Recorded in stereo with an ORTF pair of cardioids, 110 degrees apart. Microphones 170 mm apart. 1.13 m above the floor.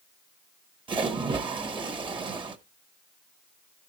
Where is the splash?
30° right, 1.3 m.